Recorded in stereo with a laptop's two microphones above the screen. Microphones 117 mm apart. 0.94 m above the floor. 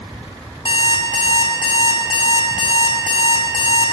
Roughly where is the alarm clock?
Left.